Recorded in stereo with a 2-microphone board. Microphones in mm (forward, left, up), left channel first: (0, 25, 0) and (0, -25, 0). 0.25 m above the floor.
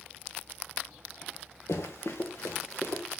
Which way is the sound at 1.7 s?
70° left (ahead or behind).